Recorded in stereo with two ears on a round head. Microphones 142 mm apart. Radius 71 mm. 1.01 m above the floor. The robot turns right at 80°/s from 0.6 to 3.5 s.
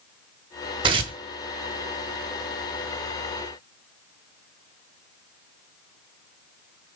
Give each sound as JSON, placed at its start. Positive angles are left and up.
{"t": 0.8, "sound": "tearing paper", "side_deg": -30, "distance_m": 0.8}